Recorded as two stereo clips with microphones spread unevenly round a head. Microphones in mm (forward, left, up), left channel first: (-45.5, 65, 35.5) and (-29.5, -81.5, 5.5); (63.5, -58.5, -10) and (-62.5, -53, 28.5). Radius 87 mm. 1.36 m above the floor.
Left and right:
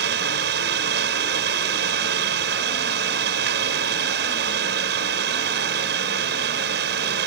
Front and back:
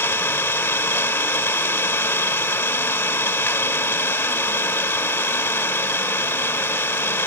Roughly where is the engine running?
Right.